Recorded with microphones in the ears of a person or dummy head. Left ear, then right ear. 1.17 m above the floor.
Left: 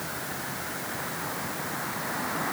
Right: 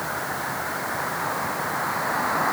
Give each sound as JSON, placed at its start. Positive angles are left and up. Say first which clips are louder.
{"t": 0.0, "sound": "a vehicle", "louder": "right 7 dB", "side_deg": -30}